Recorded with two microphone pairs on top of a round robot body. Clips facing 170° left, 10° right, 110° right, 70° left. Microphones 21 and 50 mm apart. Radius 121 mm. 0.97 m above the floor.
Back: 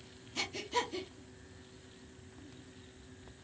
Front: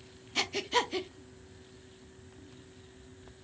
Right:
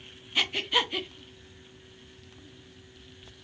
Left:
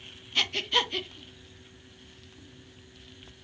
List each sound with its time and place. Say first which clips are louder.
0.3 s breathing: front 6 dB, even; 35° right, 0.8 m